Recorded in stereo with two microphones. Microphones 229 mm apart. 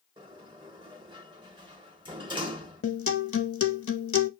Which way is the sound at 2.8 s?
70° left (ahead or behind).